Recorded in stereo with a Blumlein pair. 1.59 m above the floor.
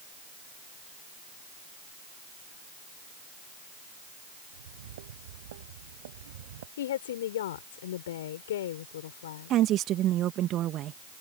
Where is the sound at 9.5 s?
30° right.